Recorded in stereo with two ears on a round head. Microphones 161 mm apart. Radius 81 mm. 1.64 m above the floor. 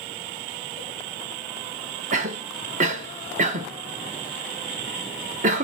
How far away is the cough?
About 1.1 m.